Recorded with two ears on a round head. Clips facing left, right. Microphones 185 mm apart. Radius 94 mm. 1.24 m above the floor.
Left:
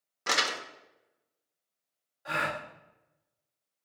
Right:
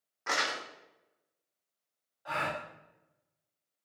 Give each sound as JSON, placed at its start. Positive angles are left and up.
{"t": 0.3, "sound": "crumpling", "side_deg": 45, "distance_m": 0.5}
{"t": 2.2, "sound": "a gasp", "side_deg": 25, "distance_m": 0.8}